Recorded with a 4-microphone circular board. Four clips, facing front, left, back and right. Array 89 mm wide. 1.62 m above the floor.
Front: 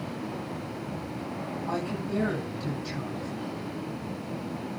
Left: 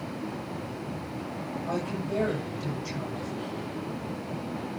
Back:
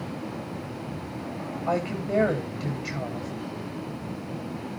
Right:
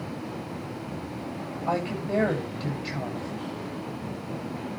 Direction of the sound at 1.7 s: 155° right.